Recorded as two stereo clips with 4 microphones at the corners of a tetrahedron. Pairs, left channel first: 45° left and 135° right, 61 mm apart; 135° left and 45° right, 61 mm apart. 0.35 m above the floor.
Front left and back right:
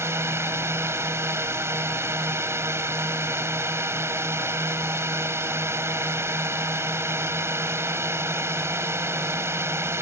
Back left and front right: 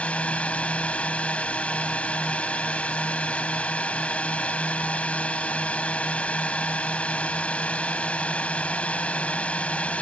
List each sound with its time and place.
0.0 s a drone: 160° right